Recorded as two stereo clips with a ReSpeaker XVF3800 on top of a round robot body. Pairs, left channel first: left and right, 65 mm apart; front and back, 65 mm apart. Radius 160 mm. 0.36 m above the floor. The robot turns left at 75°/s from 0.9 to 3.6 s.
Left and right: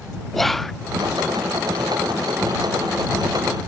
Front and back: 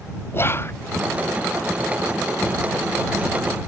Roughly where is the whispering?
Ahead.